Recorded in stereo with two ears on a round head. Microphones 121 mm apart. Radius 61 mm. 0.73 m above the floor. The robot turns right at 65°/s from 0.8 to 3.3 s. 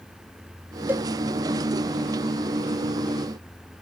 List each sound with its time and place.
0.9 s a cowbell: 15° right (ahead or behind); by 1.0 s 25° right (ahead or behind)